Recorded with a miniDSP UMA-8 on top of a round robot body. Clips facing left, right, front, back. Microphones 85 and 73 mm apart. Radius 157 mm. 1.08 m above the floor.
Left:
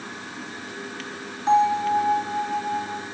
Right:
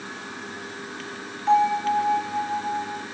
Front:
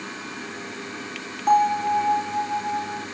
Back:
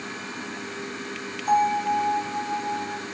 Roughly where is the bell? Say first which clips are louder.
Left 1 dB, front 3 dB; ahead left.